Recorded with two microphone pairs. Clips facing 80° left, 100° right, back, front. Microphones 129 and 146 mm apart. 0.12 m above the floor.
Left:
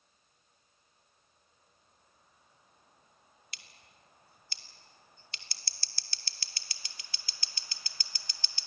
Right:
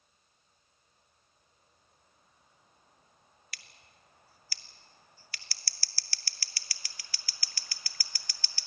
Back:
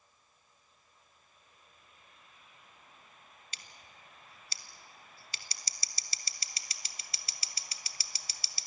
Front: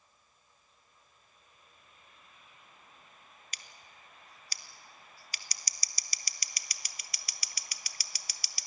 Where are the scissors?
135° left, 0.8 m.